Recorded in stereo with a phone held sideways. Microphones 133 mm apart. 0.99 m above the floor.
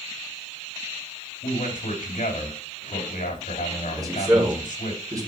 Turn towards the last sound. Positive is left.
turn(degrees=-25)  # may be behind; listen again after turning